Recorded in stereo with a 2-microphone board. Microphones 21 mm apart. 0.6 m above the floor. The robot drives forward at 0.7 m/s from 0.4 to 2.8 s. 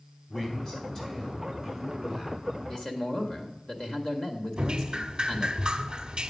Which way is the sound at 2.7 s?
30° left (ahead or behind).